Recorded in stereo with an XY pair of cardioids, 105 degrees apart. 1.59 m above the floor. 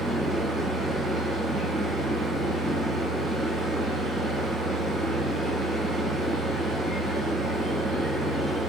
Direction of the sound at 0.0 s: 65° right.